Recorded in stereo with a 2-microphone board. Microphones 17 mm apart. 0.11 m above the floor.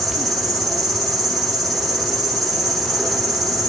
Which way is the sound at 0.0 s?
15° left (ahead or behind).